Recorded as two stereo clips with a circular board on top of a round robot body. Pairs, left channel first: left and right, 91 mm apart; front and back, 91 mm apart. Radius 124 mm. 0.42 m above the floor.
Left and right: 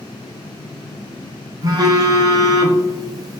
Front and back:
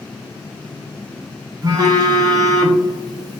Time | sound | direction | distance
1.6 | a phone buzzing | 135° right | 0.7 m